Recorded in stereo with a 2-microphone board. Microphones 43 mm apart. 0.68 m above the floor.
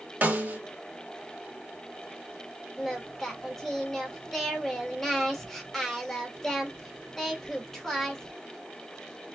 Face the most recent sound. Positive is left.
turn(degrees=5)  # may be behind; listen again after turning